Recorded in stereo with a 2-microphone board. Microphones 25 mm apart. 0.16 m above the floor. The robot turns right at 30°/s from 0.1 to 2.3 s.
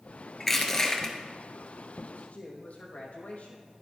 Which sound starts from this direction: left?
A man speaking, at 2.1 s.